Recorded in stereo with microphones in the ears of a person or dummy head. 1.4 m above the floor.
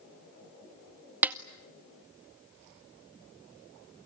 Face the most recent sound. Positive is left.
turn(degrees=-10)  # may be behind; listen again after turning